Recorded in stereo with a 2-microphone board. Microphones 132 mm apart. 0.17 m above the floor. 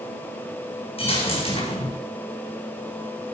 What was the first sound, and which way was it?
A dropped coin, 45° left (ahead or behind).